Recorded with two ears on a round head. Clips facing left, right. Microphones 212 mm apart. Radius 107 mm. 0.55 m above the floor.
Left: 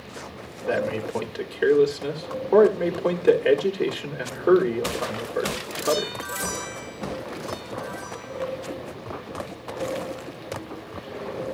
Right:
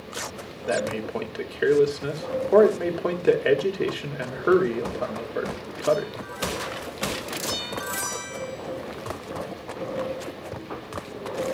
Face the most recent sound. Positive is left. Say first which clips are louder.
# left 1 dB
turn(degrees=-5)  # may be behind; listen again after turning